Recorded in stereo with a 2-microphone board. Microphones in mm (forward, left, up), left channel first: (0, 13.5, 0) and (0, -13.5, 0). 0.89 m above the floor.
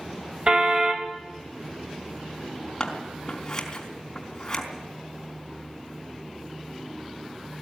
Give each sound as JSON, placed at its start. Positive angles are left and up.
{"t": 0.5, "sound": "a car horn", "side_deg": -40, "distance_m": 2.0}
{"t": 2.8, "sound": "scissors", "side_deg": 20, "distance_m": 4.0}